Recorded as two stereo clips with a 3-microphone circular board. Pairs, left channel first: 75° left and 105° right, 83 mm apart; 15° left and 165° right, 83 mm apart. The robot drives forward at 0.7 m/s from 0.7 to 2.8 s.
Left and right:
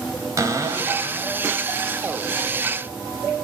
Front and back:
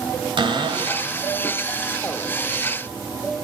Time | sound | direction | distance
0.4 | a cupboard door | 155° right | 1.2 m